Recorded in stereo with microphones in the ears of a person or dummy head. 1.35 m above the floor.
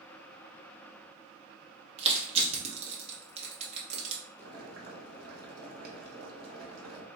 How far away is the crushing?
About 1.1 m.